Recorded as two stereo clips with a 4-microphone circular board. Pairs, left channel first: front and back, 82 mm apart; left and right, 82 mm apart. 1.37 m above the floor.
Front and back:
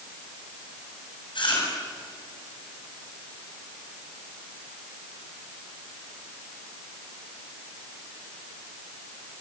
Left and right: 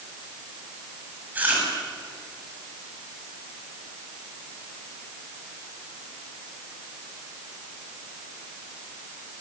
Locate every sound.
1.4 s chewing: 20° right, 9 m